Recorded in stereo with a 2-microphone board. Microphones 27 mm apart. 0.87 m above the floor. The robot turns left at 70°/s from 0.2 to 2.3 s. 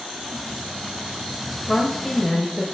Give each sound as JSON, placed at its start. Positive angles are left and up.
{"t": 1.7, "sound": "a woman speaking", "azimuth_deg": 45, "distance_m": 0.7}